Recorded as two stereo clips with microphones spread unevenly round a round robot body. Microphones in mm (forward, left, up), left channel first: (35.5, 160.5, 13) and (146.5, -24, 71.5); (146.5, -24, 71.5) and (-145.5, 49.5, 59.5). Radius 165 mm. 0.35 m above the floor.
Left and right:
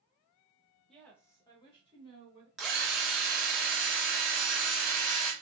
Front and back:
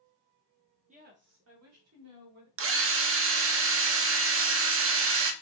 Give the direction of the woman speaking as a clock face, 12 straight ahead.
7 o'clock.